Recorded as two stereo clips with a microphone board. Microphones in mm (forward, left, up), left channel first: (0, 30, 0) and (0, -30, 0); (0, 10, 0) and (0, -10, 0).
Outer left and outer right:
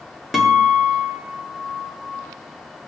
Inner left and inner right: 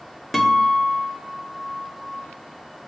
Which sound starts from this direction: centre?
A guitar, at 0.3 s.